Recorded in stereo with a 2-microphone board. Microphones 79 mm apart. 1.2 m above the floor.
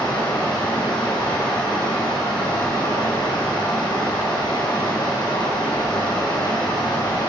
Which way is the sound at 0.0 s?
70° left (ahead or behind).